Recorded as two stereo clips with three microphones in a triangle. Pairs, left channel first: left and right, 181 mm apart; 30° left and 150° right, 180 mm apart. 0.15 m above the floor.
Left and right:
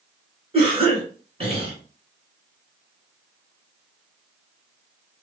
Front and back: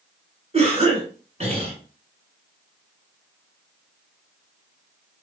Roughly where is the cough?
Behind right.